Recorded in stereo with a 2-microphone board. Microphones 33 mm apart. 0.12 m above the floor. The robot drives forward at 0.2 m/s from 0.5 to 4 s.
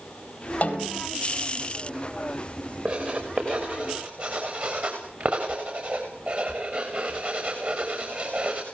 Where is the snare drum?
40° left (ahead or behind), 4 m.